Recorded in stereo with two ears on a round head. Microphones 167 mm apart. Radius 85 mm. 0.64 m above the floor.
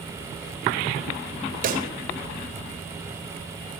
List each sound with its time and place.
1.6 s a pop: 50° right (ahead or behind), 2.5 m